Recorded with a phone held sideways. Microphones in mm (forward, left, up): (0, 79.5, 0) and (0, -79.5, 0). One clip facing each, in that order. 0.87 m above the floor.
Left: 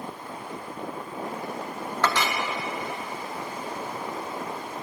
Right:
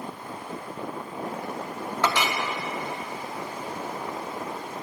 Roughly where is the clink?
Centre.